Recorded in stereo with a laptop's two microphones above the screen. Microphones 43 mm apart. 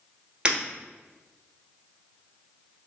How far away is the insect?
I don't hear an insect.